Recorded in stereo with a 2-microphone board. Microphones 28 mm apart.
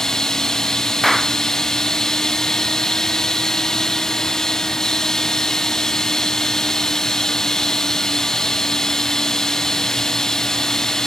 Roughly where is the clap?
Centre.